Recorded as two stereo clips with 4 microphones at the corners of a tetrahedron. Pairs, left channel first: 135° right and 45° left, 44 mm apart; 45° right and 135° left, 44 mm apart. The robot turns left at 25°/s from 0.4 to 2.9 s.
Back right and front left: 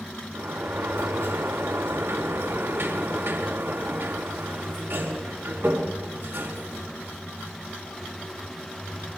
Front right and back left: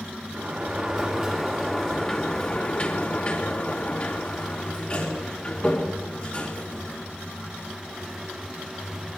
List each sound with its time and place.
0.3 s a sliding door: 70° left, 3.5 m; by 7.2 s 5° left, 3.5 m